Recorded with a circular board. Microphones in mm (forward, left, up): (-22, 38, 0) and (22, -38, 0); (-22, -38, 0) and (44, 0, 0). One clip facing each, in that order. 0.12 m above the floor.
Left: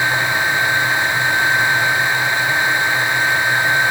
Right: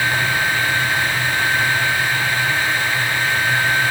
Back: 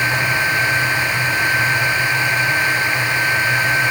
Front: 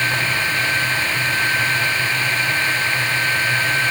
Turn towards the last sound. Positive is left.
No sound to turn to.